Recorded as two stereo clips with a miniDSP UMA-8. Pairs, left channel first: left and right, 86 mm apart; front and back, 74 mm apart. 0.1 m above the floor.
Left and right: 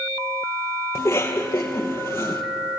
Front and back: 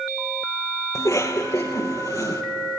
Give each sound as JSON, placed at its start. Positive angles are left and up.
{"t": 0.9, "sound": "a cough", "azimuth_deg": 35, "distance_m": 2.5}